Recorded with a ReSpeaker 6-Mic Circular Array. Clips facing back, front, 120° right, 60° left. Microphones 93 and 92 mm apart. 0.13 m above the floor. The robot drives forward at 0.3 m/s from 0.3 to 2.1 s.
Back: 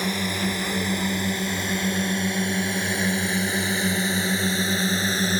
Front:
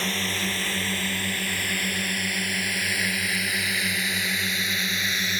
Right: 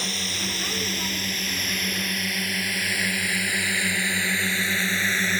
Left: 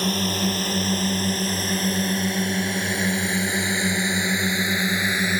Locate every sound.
0.0 s a drone: 105° left; by 5.4 s 135° left